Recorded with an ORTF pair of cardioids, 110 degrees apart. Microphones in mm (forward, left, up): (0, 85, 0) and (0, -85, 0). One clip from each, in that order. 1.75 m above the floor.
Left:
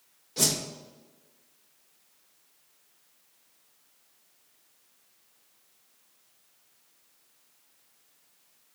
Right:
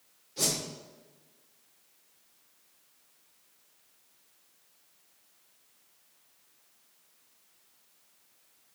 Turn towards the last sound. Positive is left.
turn(degrees=55)